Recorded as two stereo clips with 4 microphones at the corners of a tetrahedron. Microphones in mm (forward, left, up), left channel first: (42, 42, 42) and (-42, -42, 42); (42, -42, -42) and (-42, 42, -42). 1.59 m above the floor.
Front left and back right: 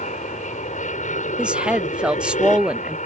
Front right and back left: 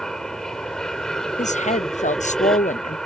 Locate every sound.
0.0 s an aircraft: 40° left
1.4 s a woman speaking: 55° right